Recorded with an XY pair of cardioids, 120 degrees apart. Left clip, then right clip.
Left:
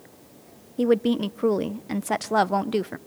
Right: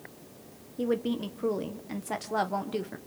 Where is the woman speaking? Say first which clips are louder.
Left 8 dB; 45° left, 0.7 m.